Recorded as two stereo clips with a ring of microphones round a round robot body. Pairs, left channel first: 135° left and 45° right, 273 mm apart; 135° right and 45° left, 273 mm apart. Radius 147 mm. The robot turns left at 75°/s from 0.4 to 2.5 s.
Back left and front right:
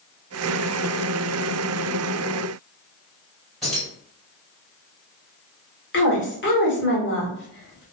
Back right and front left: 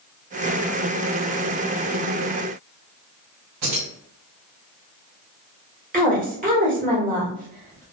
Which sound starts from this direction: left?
A woman speaking, at 5.9 s.